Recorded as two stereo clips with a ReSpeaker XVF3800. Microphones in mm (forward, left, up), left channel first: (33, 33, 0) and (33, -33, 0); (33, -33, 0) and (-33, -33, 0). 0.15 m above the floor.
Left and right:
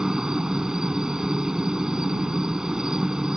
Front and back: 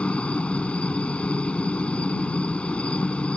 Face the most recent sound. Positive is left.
turn(degrees=-30)